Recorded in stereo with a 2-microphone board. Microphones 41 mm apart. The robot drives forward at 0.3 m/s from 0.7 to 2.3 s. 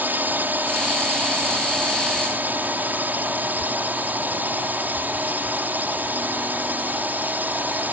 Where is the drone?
50° right (ahead or behind).